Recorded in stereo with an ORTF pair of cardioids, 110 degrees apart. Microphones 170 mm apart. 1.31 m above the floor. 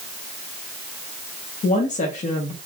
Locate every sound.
1.6 s a woman speaking: 50° left, 1.3 m